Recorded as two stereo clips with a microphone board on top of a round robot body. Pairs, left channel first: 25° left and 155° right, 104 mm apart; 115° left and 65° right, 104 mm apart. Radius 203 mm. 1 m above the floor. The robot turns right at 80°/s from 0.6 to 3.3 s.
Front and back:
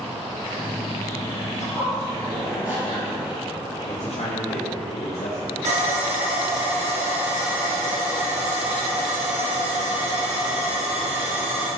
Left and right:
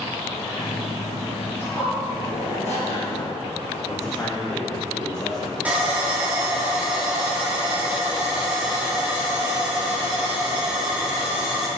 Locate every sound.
1.6 s a zipper: 40° left, 4 m; by 3.3 s 175° left, 4 m
3.9 s a man speaking: 45° left, 1.5 m
5.7 s sawing: 145° right, 3 m